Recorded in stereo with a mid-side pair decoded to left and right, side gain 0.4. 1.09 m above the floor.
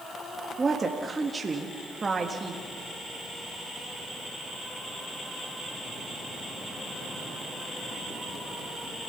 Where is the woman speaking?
30° right, 2.0 m.